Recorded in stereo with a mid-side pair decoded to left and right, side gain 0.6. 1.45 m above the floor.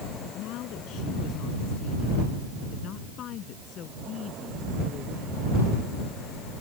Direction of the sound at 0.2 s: 65° left.